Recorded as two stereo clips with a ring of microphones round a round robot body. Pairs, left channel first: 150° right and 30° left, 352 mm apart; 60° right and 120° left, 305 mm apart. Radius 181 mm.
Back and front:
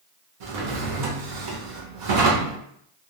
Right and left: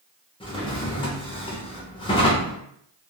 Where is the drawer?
15° left, 0.8 m.